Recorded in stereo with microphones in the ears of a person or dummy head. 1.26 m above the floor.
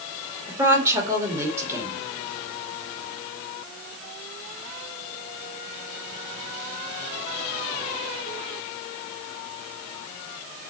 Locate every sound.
0.5 s a woman speaking: 15° right (ahead or behind), 2.5 m